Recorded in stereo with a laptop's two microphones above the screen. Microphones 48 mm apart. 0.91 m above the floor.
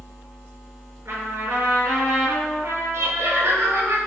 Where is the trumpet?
65° right (ahead or behind), 6.5 m.